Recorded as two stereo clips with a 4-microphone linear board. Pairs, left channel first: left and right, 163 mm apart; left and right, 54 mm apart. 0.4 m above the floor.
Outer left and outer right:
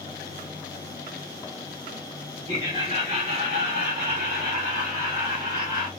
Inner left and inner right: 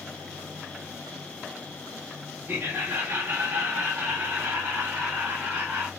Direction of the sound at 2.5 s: 30° right (ahead or behind).